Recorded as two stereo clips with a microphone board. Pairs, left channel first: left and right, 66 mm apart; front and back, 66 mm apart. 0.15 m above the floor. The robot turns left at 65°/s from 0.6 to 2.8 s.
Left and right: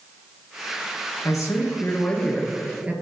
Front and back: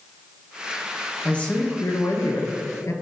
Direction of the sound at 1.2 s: 75° left.